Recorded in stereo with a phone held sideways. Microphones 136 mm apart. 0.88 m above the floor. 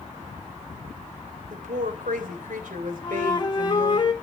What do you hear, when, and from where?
1.5 s a woman speaking: 80° right, 3 m
3.0 s a flute: 35° left (ahead or behind), 1.8 m